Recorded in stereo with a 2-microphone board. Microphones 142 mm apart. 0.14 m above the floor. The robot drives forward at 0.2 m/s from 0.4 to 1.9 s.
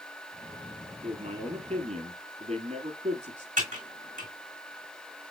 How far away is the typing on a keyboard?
About 2.5 m.